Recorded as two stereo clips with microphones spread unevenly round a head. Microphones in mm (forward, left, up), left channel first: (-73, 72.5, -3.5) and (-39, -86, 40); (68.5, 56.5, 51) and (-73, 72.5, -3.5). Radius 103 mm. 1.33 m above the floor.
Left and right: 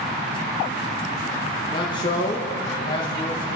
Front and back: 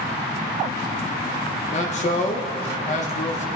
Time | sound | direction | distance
1.7 | a man speaking | 35° left | 1.2 m